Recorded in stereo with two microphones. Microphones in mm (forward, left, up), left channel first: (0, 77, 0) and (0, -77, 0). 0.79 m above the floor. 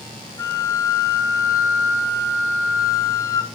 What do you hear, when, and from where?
0.4 s a flute: 20° left (ahead or behind), 0.9 m